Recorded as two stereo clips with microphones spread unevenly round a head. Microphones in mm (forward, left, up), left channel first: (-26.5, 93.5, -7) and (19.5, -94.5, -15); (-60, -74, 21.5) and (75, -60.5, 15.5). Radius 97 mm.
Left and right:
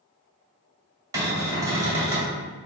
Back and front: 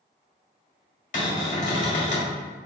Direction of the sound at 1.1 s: 150° right.